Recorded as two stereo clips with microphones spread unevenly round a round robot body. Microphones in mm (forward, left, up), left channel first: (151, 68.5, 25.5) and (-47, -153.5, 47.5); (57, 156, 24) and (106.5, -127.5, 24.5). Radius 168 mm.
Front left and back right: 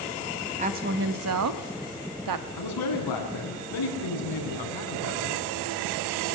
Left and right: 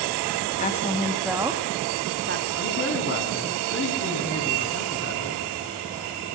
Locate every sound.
0.6 s a woman speaking: 160° left, 1.2 m; by 2.5 s 135° right, 1.9 m
2.6 s a man speaking: 50° left, 6.5 m